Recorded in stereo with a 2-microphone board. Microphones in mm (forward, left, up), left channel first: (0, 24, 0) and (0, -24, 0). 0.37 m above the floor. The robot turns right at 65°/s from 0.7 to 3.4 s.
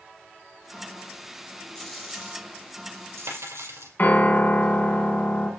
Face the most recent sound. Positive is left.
turn(degrees=45)  # may be behind; listen again after turning